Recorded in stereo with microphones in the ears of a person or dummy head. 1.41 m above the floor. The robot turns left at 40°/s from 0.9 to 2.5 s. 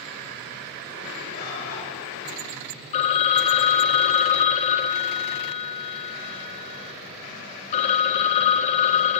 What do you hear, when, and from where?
1.3 s a bird: 45° left (ahead or behind), 6.5 m; by 1.9 s 65° left (ahead or behind), 6.5 m
2.9 s a phone ringing: 35° left (ahead or behind), 0.8 m